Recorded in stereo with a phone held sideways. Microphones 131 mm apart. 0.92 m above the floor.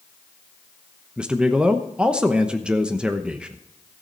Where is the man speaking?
5° right (ahead or behind), 0.9 m.